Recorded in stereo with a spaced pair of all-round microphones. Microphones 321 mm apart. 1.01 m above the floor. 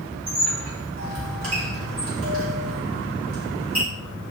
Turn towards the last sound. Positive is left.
turn(degrees=-45)  # may be behind; listen again after turning